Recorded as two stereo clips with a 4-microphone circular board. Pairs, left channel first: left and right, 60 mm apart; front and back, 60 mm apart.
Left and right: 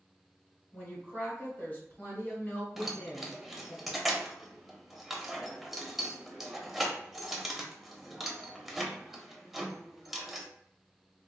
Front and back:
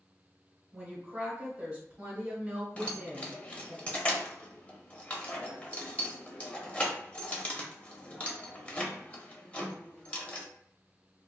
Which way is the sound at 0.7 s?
125° left.